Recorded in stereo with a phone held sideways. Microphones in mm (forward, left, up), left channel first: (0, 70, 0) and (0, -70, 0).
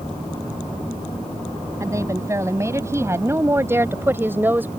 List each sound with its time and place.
1.8 s a woman speaking: 20° right (ahead or behind); by 4.7 s 15° right (ahead or behind)